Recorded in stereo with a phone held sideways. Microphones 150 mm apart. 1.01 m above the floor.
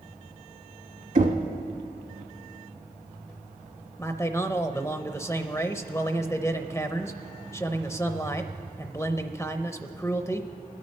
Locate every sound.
1.1 s knocking: 60° right (ahead or behind), 1.3 m
4.0 s a man speaking: 20° left (ahead or behind), 0.5 m